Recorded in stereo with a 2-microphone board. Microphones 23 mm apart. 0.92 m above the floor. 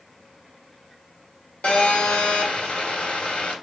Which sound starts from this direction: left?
A phone buzzing, at 1.6 s.